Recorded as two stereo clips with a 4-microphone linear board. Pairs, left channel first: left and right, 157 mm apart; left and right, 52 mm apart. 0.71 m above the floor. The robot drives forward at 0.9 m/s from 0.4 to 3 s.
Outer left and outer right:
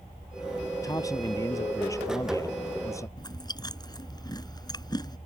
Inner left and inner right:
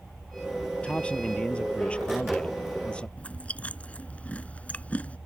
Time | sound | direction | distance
0.8 | a man speaking | 20° left (ahead or behind) | ?
3.2 | chewing | 25° left (ahead or behind) | ?